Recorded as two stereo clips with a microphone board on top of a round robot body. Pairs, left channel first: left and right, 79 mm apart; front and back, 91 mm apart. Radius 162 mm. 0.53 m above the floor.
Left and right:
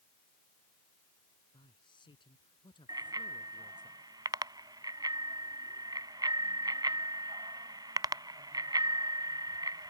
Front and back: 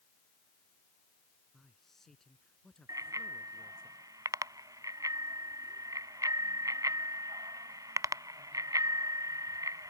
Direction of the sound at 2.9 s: 130° right.